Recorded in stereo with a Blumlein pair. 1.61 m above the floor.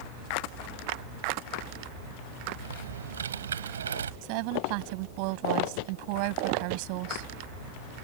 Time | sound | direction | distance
2.6 | typing on a keyboard | 70° right | ?
4.2 | a woman speaking | 45° right | ?